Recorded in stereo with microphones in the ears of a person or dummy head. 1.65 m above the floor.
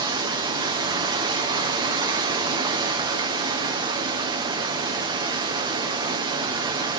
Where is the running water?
25° right (ahead or behind), 0.7 m.